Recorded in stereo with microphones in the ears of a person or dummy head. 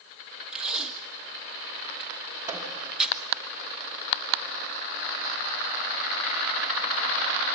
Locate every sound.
0.5 s tape being pulled: centre (ahead or behind), 1.8 m
2.5 s a microwave: 15° right (ahead or behind), 3 m